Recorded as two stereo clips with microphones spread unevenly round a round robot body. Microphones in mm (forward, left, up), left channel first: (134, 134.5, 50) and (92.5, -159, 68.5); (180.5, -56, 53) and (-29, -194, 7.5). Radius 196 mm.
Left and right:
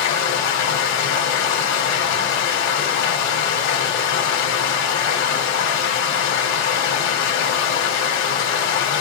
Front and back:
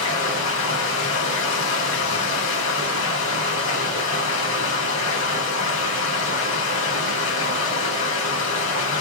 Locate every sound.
0.0 s running water: 85° left, 2 m